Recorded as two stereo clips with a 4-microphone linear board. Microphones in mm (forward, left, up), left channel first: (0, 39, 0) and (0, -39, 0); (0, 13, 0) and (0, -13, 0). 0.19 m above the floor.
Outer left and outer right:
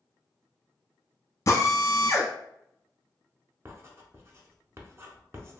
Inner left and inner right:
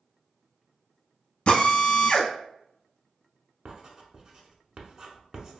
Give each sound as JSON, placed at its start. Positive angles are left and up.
{"t": 1.5, "sound": "a drill", "side_deg": 40, "distance_m": 0.8}
{"t": 3.6, "sound": "writing", "side_deg": -35, "distance_m": 0.7}